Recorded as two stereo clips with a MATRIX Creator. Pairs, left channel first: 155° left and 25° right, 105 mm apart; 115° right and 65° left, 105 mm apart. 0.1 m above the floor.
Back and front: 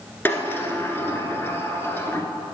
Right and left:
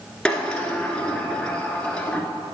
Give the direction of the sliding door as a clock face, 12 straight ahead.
6 o'clock.